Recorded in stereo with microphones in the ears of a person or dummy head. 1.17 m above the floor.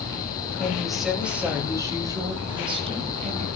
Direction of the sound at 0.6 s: 5° left (ahead or behind).